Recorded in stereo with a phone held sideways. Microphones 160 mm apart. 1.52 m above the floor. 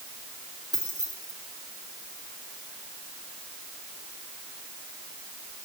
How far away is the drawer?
No drawer in this recording.